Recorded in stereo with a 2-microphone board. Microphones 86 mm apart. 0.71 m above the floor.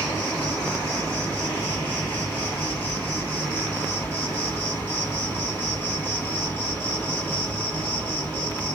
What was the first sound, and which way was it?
An insect, 25° left (ahead or behind).